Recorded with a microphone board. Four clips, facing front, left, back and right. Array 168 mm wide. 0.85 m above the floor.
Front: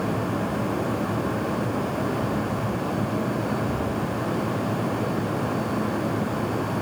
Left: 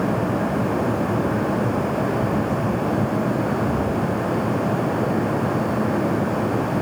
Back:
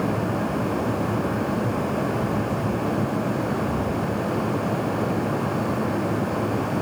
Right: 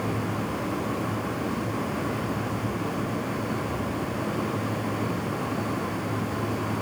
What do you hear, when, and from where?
Only background noise.